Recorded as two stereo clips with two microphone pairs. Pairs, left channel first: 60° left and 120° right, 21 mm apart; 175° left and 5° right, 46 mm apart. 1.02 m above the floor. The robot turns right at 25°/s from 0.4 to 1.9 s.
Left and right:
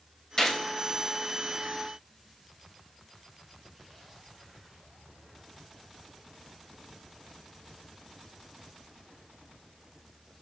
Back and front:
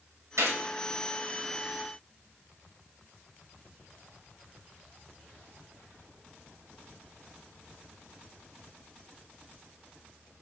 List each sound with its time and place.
0.4 s a gunshot: straight ahead, 2.5 m; by 0.6 s 5° left, 2.5 m